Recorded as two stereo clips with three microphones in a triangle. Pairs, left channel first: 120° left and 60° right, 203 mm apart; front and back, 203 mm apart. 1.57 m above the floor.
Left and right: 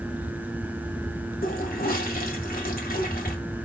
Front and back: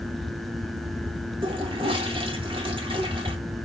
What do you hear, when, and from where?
1.4 s a toilet flushing: 125° left, 1.8 m